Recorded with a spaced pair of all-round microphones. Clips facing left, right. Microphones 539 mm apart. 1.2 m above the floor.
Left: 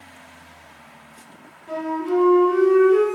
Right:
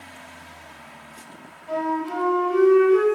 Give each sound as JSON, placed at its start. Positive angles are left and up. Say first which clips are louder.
{"t": 1.7, "sound": "a flute", "louder": "left 4 dB", "side_deg": -35, "distance_m": 1.6}